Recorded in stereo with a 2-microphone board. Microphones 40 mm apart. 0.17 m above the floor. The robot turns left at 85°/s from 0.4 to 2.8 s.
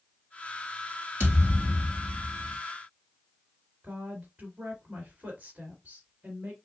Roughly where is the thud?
Ahead right.